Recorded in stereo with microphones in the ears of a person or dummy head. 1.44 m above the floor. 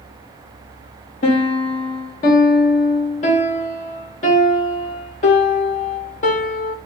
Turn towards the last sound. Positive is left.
turn(degrees=40)  # may be behind; listen again after turning